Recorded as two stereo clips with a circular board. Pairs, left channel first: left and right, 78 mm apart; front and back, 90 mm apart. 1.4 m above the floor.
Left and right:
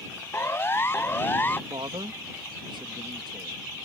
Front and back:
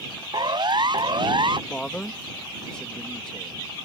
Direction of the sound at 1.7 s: 80° right.